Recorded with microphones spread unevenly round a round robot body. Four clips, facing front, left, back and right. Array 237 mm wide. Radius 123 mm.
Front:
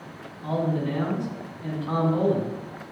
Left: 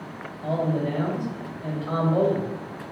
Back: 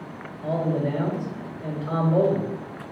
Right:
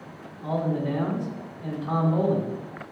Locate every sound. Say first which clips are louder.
0.4 s a man speaking: left 1 dB, back 1 dB; 165° left, 2.5 m